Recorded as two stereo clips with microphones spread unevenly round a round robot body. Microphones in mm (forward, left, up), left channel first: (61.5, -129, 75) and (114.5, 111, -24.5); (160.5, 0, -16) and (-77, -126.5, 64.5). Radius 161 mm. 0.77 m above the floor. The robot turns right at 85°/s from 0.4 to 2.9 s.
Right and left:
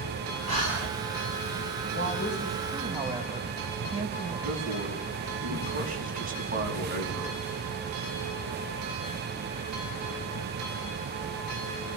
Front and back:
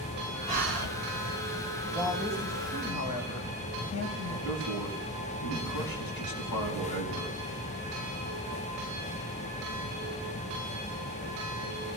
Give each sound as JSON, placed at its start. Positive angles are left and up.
{"t": 0.5, "sound": "breathing", "azimuth_deg": 130, "distance_m": 2.5}
{"t": 1.9, "sound": "a woman speaking", "azimuth_deg": -70, "distance_m": 4.5}
{"t": 4.5, "sound": "a man speaking", "azimuth_deg": 25, "distance_m": 5.5}